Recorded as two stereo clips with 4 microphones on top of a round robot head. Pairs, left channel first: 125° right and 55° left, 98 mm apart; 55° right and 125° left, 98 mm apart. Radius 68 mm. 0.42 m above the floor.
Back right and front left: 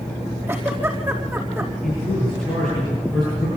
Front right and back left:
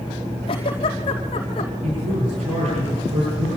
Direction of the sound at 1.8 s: 150° left.